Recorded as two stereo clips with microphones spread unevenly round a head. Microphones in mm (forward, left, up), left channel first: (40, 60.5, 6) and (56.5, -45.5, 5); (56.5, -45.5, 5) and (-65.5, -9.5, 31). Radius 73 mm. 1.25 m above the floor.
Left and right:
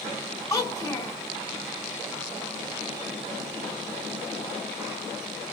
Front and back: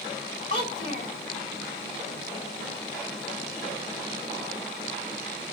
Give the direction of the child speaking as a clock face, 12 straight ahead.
11 o'clock.